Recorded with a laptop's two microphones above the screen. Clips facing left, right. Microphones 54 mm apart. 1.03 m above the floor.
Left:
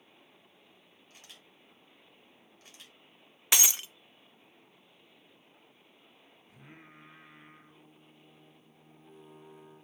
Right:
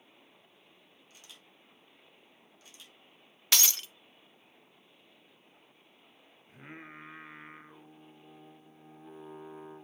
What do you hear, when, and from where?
1.1 s a camera shutter: 45° left (ahead or behind), 3.5 m
3.5 s breaking glass: 20° left (ahead or behind), 0.6 m
6.5 s singing: 40° right (ahead or behind), 0.7 m